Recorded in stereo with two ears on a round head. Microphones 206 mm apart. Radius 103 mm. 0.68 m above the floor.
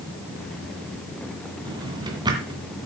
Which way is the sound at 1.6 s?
20° right (ahead or behind).